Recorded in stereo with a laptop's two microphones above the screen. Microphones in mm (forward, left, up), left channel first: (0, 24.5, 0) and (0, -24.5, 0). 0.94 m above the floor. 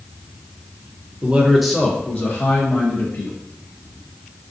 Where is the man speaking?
25° right (ahead or behind), 0.6 m; by 3.3 s 60° left (ahead or behind), 1.1 m.